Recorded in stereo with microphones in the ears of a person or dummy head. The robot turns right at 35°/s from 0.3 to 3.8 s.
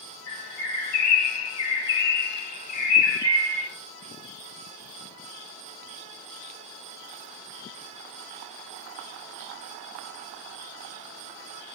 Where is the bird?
100° left, 2.5 m; by 3.7 s 145° right, 2.5 m.